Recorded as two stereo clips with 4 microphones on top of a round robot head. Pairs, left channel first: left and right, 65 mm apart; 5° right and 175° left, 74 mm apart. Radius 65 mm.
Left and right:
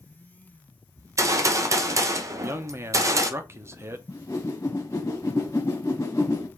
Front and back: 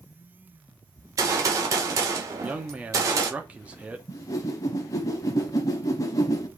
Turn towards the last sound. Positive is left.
turn(degrees=30)